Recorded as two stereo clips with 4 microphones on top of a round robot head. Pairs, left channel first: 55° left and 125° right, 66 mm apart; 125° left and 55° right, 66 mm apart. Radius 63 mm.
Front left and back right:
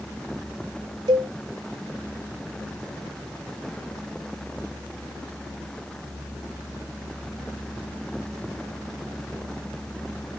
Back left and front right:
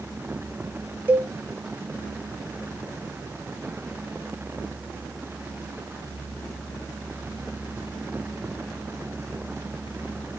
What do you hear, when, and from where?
1.1 s a cowbell: 120° right, 0.6 m